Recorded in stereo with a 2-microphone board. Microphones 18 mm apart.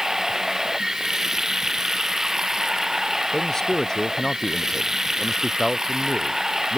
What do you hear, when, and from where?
0.0 s running water: 25° right (ahead or behind)
3.3 s a man speaking: 30° left (ahead or behind)